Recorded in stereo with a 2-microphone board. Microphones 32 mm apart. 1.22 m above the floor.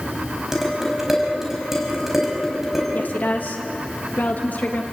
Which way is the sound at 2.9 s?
65° left (ahead or behind).